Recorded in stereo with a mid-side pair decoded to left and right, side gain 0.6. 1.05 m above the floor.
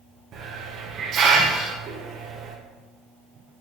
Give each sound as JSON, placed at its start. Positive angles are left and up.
{"t": 0.3, "sound": "a hiss", "azimuth_deg": -55, "distance_m": 0.6}